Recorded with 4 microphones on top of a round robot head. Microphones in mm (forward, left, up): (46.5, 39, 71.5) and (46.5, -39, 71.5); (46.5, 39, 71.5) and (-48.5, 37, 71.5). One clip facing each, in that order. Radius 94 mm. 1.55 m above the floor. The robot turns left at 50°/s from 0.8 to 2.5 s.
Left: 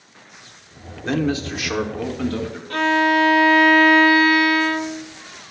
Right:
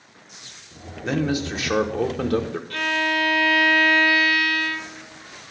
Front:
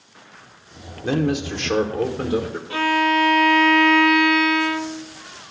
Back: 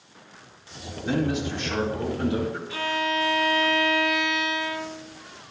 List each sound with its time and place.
1.0 s a man speaking: straight ahead, 1.1 m; by 2.6 s 75° right, 1.1 m
2.7 s a violin: 40° left, 0.6 m